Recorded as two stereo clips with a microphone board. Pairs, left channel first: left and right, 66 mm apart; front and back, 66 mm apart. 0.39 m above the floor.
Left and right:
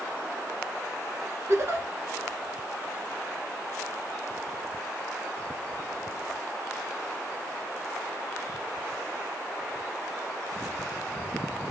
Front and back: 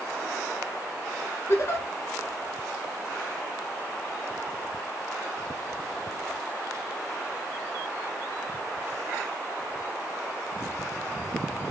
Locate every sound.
1.5 s a giggle: 45° right, 0.7 m